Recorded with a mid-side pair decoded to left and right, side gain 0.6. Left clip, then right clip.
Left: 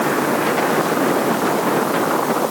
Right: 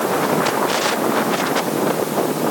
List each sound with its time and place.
Only background noise.